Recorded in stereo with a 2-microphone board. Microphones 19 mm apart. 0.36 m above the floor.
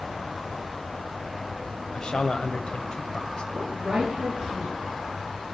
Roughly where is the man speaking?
Left.